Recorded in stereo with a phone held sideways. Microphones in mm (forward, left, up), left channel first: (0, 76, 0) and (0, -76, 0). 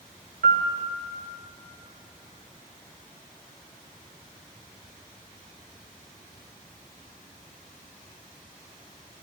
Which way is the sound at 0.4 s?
80° right.